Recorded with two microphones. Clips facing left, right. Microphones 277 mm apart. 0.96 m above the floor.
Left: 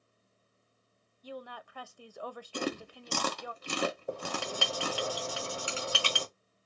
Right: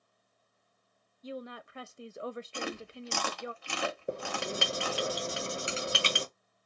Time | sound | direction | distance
1.2 | a woman speaking | 25° right (ahead or behind) | 0.5 m
2.5 | chewing | 45° left (ahead or behind) | 0.8 m
4.1 | writing | 25° right (ahead or behind) | 1.3 m